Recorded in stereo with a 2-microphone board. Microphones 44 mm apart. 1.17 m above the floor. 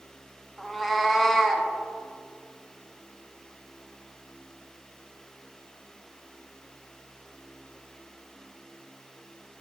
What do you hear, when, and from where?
0.6 s a cat meowing: centre (ahead or behind), 0.7 m